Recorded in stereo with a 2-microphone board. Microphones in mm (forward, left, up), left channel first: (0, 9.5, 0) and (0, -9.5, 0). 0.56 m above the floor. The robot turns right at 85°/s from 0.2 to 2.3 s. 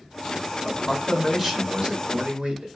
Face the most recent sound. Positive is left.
turn(degrees=-105)